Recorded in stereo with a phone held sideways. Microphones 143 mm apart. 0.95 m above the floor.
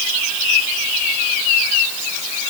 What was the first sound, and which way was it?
Only background noise.